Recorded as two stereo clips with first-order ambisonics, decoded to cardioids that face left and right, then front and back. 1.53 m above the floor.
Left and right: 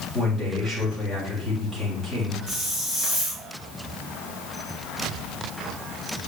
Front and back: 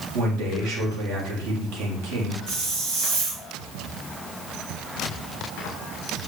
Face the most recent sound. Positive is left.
turn(degrees=175)